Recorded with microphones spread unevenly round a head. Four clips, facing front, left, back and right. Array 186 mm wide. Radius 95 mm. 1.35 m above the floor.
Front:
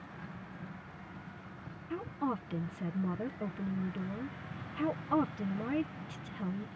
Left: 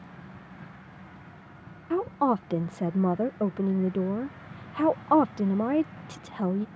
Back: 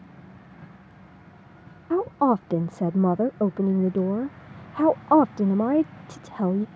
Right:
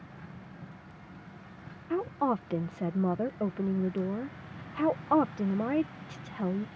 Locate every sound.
1.9 s a woman speaking: 170° left